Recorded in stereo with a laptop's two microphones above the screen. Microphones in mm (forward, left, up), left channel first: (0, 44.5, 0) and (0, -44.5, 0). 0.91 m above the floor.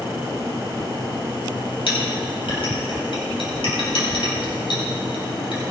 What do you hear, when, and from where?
1.9 s a clink: 75° left (ahead or behind), 3.5 m